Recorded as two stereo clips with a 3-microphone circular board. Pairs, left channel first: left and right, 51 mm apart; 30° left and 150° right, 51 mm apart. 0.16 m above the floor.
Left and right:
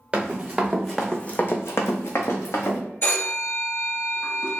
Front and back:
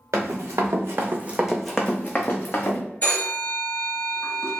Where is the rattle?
No rattle in this recording.